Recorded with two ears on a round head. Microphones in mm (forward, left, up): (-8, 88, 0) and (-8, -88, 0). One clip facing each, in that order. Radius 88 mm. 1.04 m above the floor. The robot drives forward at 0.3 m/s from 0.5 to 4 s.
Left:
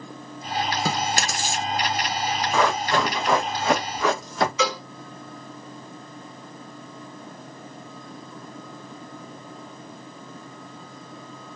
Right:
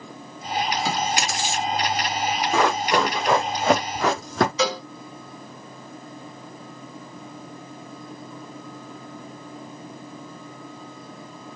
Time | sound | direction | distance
0.8 | chewing | 40° left (ahead or behind) | 1.0 m
2.5 | running footsteps | 20° right (ahead or behind) | 1.8 m
4.6 | a cowbell | 35° right (ahead or behind) | 1.7 m